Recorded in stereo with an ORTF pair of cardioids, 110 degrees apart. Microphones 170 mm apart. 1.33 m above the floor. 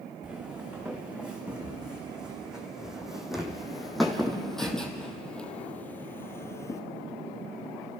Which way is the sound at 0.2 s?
5° right.